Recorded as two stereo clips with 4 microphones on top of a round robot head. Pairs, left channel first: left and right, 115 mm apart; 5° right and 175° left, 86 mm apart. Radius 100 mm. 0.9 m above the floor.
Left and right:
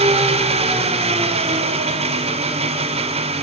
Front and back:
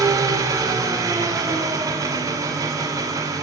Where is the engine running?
120° right, 2 m.